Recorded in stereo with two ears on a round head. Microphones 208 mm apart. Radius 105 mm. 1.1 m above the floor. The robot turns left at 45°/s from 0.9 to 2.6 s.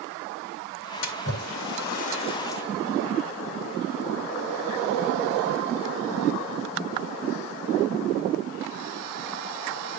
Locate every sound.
1.0 s a splash: 80° left, 3.5 m; by 2.6 s 10° left (ahead or behind), 3.5 m